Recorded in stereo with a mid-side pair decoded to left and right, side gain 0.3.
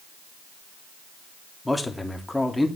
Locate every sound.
1.6 s a man speaking: 20° left, 2.5 m